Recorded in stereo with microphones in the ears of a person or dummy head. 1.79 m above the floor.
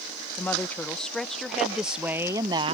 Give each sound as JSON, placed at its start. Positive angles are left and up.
{"t": 0.4, "sound": "a woman speaking", "side_deg": 5}